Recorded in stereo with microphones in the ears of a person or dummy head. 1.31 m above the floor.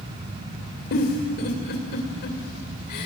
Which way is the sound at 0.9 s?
55° left (ahead or behind).